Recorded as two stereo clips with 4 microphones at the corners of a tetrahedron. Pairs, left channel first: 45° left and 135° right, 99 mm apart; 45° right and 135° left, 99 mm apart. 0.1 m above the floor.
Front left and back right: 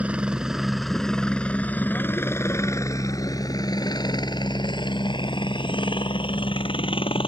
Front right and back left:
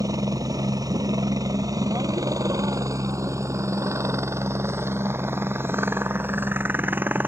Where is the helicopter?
155° left; by 7.3 s 65° left.